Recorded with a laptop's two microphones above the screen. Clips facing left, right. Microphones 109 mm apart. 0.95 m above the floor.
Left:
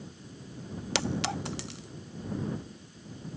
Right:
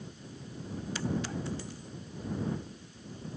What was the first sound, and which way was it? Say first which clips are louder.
A clink: left 3 dB; 80° left.